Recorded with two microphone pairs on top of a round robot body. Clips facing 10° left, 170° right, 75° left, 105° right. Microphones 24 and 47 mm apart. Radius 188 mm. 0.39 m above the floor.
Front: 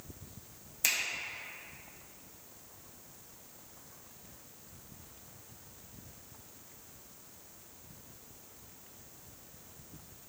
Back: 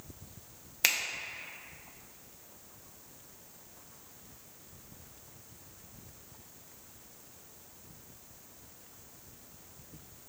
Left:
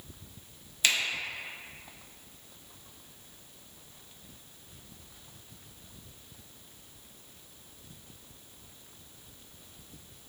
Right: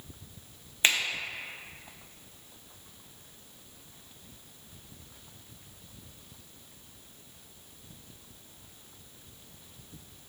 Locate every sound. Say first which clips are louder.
0.8 s a finger snap: back 3 dB, right 2 dB; 140° right, 0.6 m